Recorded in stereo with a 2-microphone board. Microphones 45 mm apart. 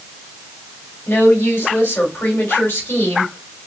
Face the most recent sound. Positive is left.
turn(degrees=60)  # may be behind; listen again after turning